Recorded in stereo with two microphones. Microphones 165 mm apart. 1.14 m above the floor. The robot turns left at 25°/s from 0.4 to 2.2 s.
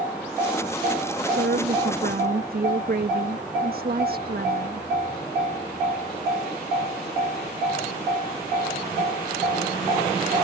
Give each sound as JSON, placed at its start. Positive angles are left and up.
{"t": 1.3, "sound": "a woman speaking", "side_deg": -80}